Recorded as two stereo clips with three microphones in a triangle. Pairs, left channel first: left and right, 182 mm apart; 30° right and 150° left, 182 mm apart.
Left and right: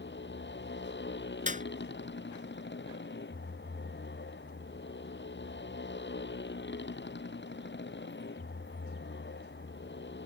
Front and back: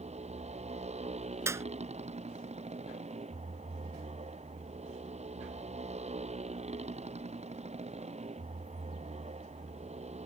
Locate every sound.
0.0 s a motorcycle: 95° left
1.5 s a clap: 135° right